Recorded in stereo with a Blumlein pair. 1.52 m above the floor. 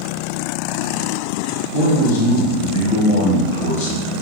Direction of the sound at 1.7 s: 50° left.